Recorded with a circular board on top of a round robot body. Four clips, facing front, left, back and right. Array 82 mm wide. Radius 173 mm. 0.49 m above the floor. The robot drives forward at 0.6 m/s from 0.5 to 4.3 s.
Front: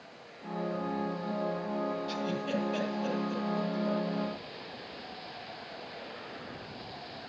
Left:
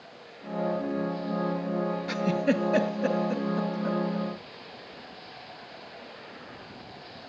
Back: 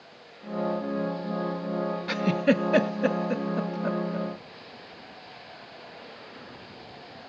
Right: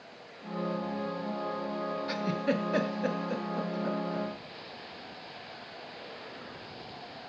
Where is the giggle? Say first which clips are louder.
Left 5 dB, back 9 dB; 170° left, 0.9 m; by 4.3 s 175° left, 2 m.